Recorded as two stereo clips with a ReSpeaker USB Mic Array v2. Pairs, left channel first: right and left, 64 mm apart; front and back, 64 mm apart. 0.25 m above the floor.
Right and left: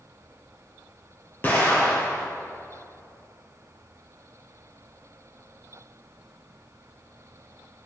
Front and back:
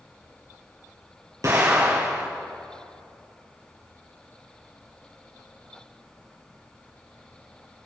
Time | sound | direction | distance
1.4 | an explosion | 145° right | 3 m